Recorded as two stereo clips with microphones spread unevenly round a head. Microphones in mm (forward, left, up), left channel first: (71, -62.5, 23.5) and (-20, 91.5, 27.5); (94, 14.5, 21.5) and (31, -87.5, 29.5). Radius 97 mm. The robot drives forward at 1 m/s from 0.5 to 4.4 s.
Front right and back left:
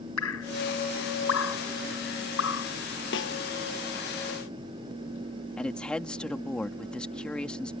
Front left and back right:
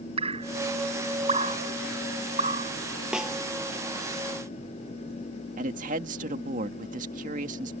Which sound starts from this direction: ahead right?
A snare drum, at 3.1 s.